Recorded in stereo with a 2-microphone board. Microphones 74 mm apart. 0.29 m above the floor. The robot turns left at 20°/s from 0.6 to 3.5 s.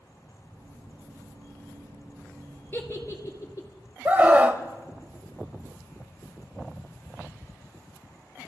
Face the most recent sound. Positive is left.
turn(degrees=-25)  # may be behind; listen again after turning